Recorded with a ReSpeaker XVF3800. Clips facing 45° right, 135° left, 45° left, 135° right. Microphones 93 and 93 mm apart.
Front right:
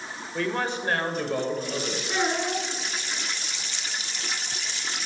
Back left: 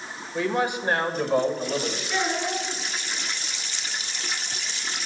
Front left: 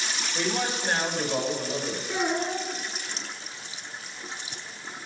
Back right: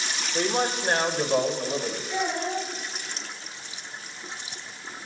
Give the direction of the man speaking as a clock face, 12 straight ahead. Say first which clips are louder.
Back left 3 dB, back right 4 dB; 5 o'clock.